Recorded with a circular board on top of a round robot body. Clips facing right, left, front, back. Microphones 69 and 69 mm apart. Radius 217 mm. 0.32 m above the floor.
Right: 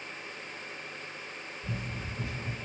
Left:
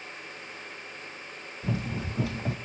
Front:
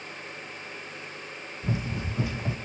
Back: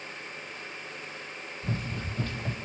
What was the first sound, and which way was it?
Running footsteps, 75° left.